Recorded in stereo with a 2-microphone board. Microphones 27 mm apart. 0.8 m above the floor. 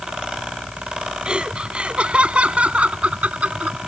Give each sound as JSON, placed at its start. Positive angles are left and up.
{"t": 1.2, "sound": "laughter", "side_deg": -35}